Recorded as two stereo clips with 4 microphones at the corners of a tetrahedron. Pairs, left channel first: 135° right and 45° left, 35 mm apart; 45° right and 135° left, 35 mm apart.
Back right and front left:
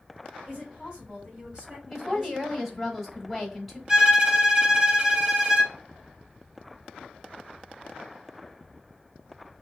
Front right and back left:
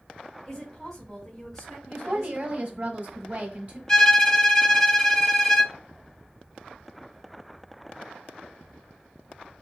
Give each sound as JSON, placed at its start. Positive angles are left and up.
{"t": 0.5, "sound": "a woman speaking", "azimuth_deg": 20, "distance_m": 1.7}
{"t": 1.9, "sound": "a woman speaking", "azimuth_deg": 125, "distance_m": 1.0}
{"t": 3.9, "sound": "a violin", "azimuth_deg": 10, "distance_m": 0.7}